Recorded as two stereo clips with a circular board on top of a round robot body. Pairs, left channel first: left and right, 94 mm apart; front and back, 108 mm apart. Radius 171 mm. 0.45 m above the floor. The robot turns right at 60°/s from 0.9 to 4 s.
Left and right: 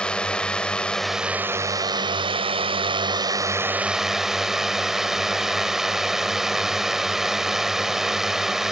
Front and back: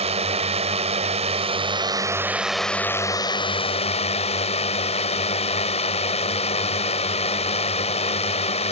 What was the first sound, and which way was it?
A drone, 170° left.